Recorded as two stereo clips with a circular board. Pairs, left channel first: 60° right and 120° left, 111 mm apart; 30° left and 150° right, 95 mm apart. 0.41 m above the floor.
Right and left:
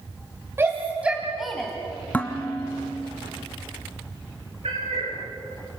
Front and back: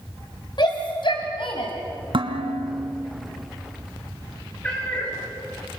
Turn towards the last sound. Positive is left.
turn(degrees=105)